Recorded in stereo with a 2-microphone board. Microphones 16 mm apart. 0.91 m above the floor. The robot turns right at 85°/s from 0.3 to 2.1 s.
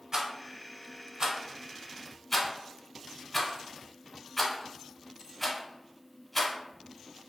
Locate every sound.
0.1 s a rattle: 35° right (ahead or behind), 0.9 m; by 6.5 s 15° left (ahead or behind), 0.9 m